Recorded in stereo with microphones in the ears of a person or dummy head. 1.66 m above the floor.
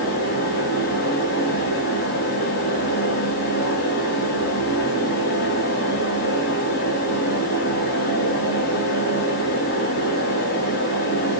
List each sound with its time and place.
0.0 s a fan: 50° left (ahead or behind), 1.7 m